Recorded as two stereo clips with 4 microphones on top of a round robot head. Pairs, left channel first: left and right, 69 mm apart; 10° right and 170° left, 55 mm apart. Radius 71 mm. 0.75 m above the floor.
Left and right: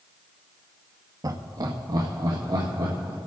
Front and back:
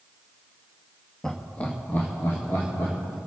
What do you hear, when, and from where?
1.2 s laughter: 90° right, 1.0 m; by 3.2 s 55° right, 2.5 m